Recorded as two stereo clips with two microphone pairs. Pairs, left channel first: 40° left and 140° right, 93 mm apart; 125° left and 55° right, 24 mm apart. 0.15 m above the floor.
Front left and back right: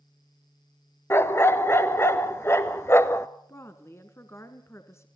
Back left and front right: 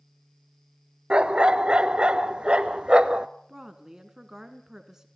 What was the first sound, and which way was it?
A dog barking, 20° right.